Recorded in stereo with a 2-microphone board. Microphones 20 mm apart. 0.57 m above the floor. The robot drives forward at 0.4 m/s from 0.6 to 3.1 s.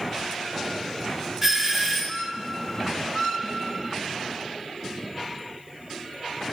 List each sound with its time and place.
1.4 s a doorbell: 20° right (ahead or behind), 1.9 m